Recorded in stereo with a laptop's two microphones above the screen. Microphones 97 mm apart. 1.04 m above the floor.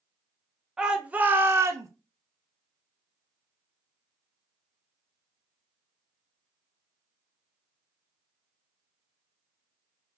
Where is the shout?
5° right (ahead or behind), 0.8 m; by 1.9 s 35° right (ahead or behind), 0.5 m.